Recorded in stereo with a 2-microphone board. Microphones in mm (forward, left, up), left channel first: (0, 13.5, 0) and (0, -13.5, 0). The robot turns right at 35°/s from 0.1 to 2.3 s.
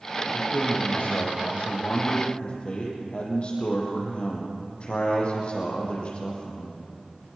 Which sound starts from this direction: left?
A man speaking, at 0.3 s.